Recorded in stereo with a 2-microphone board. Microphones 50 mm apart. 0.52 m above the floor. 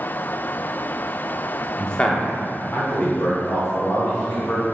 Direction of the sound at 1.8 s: 10° left (ahead or behind).